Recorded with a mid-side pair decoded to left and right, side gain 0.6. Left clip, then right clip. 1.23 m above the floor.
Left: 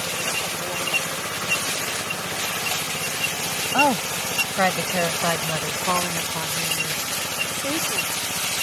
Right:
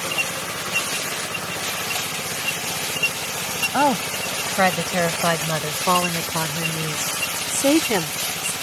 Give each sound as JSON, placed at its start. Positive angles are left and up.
{"t": 3.7, "sound": "a woman speaking", "azimuth_deg": -5}